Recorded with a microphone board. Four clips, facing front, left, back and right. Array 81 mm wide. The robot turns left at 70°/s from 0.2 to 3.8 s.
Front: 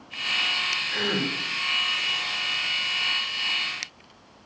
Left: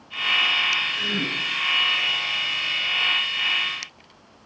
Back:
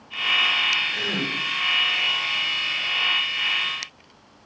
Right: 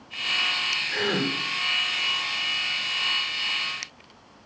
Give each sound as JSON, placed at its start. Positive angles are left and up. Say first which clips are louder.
{"t": 0.9, "sound": "a gasp", "louder": "right 2 dB, front 1 dB", "azimuth_deg": -40, "distance_m": 6.5}